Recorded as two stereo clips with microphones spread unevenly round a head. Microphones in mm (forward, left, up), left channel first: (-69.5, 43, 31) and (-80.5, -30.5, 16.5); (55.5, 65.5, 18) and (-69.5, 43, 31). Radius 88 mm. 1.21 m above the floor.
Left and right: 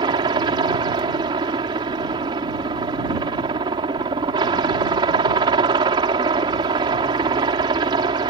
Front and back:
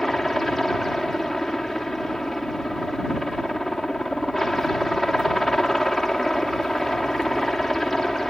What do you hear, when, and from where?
0.0 s a helicopter: 80° right